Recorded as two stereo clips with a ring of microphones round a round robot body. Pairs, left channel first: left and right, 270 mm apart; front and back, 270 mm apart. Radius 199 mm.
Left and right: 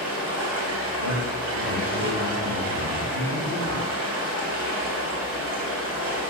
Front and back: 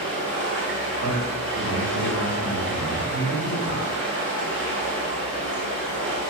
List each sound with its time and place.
0.0 s running water: 125° right, 2.5 m
1.0 s a man speaking: 145° right, 3.5 m